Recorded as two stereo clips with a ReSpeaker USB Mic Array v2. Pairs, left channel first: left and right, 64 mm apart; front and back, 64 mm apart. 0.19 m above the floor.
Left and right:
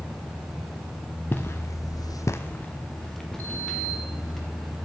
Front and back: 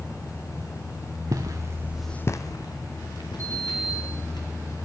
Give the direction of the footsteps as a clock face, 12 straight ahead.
7 o'clock.